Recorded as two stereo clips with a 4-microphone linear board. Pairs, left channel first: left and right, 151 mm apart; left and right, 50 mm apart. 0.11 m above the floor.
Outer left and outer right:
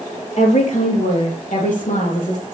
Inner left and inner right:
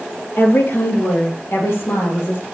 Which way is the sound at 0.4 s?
55° left (ahead or behind).